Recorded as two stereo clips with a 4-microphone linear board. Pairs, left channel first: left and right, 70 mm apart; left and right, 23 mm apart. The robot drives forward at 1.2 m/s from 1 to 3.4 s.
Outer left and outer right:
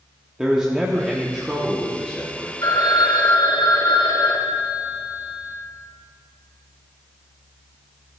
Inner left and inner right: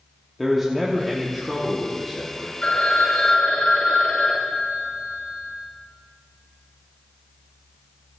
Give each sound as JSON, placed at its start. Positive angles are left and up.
{"t": 0.4, "sound": "a man speaking", "side_deg": -10, "distance_m": 1.2}
{"t": 2.6, "sound": "a phone ringing", "side_deg": 70, "distance_m": 1.3}